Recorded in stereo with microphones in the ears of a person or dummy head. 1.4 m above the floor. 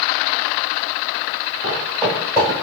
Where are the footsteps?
10° left (ahead or behind), 1.5 m; by 2.6 s 10° right (ahead or behind), 1.3 m.